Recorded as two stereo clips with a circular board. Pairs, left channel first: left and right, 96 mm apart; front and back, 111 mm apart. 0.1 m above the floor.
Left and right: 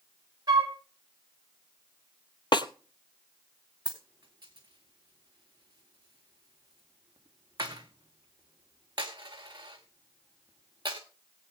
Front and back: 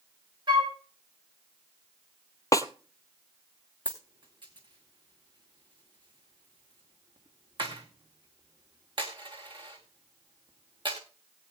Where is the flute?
135° right, 3 m.